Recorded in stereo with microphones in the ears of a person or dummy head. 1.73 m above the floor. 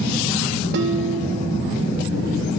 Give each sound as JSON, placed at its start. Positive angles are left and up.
{"t": 0.7, "sound": "dishes clattering", "side_deg": -70, "distance_m": 2.0}